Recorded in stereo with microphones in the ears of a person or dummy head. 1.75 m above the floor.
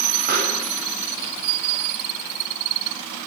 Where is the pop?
55° right (ahead or behind), 8 m.